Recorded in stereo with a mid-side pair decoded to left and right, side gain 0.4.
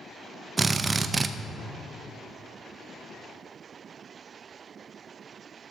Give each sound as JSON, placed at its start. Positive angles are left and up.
{"t": 0.6, "sound": "a drill", "azimuth_deg": -35, "distance_m": 0.5}